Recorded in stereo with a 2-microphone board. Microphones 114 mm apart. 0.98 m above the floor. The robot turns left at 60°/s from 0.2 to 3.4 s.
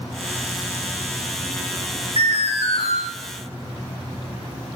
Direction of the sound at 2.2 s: 125° left.